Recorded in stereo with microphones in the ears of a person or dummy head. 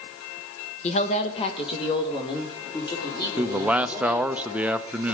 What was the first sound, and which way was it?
A woman speaking, 35° left (ahead or behind).